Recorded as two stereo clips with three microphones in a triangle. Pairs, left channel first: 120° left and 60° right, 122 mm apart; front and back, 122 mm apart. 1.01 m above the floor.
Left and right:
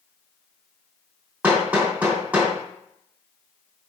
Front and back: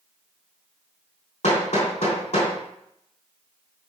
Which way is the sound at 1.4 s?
20° left.